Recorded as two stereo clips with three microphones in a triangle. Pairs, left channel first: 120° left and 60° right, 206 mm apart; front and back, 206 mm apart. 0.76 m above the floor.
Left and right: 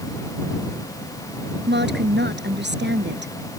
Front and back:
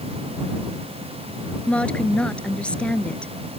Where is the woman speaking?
85° right.